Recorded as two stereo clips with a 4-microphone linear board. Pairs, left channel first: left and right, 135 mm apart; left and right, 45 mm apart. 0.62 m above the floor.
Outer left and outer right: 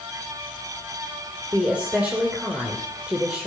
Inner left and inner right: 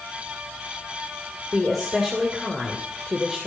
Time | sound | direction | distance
1.5 | a woman speaking | 10° right (ahead or behind) | 2.5 m